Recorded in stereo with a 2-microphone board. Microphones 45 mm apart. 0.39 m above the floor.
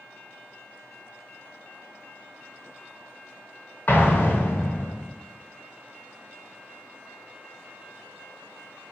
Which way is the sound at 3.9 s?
45° left (ahead or behind).